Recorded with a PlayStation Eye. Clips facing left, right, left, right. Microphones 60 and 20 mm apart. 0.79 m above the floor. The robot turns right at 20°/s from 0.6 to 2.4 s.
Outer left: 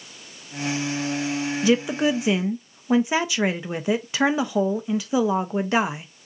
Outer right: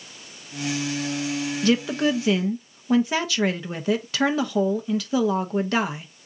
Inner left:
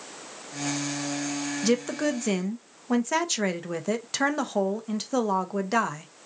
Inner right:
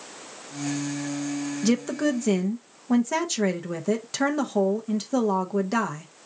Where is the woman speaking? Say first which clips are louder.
Outer left 1 dB, inner right 1 dB; 10° left (ahead or behind), 0.6 m; by 6.1 s 15° left (ahead or behind), 0.6 m.